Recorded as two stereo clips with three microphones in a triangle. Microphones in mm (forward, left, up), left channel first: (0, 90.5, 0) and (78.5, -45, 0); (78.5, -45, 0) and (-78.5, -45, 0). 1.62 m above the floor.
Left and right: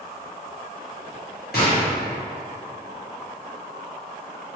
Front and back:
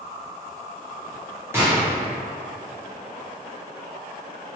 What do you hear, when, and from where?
1.5 s a gunshot: 105° left, 1.0 m